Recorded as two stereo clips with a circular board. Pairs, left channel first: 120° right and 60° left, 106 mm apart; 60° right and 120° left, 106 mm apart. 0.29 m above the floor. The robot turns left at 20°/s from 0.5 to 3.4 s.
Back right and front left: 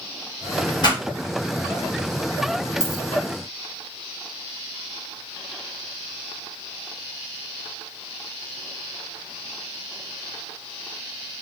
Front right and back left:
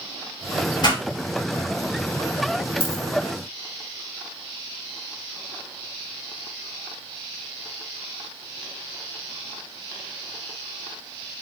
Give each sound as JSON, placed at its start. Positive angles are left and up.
{"t": 0.8, "sound": "a pop", "azimuth_deg": -80, "distance_m": 2.5}
{"t": 2.8, "sound": "a dropped coin", "azimuth_deg": -35, "distance_m": 0.8}